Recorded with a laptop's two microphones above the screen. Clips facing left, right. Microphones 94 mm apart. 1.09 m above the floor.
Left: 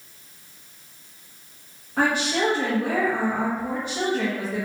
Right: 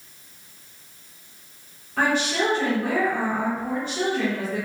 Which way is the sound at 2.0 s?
15° left (ahead or behind).